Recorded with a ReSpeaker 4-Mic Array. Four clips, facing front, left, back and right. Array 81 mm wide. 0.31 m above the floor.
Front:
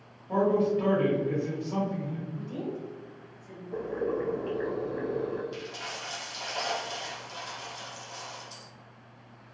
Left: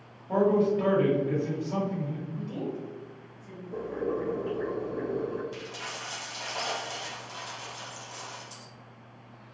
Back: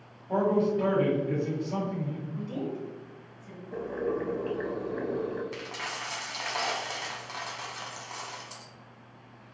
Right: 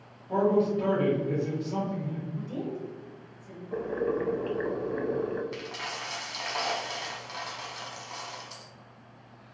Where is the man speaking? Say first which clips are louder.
Left 1 dB, front 1 dB; 80° left, 1.7 m.